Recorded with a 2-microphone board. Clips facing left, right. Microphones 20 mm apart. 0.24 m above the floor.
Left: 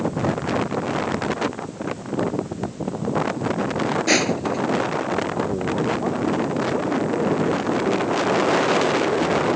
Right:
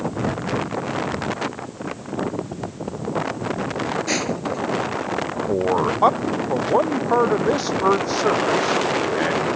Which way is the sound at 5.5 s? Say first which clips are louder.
Right 3 dB; 80° right.